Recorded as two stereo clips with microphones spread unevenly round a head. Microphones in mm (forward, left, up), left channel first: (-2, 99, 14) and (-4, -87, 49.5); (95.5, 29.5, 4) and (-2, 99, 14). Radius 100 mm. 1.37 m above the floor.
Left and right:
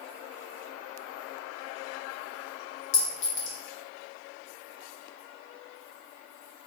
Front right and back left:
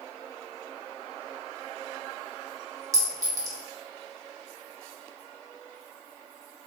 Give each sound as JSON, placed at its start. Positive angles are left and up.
{"t": 2.9, "sound": "a clink", "azimuth_deg": 95, "distance_m": 0.8}